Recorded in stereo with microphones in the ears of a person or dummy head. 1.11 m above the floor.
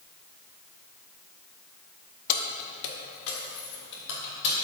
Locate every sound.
2.3 s keys jangling: 50° left (ahead or behind), 0.9 m; by 4.5 s 80° left, 3 m